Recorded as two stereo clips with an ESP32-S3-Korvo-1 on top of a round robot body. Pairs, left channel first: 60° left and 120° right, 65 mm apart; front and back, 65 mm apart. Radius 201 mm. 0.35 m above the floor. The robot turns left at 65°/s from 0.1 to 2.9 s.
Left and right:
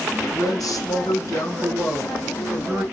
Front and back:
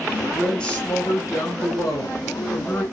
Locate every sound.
0.3 s a woman speaking: 100° left, 3.5 m; by 2.9 s 70° right, 3.5 m